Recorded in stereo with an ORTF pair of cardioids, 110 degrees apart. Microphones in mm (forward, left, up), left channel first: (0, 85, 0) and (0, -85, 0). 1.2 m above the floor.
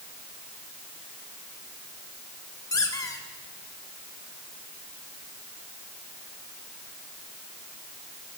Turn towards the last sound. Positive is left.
turn(degrees=20)